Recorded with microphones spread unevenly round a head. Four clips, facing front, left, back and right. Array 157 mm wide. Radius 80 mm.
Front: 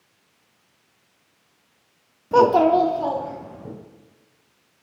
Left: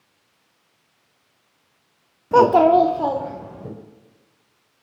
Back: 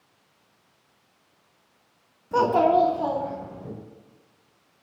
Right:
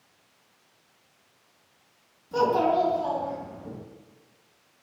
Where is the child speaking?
60° left, 0.8 m; by 3.7 s 85° left, 2.5 m.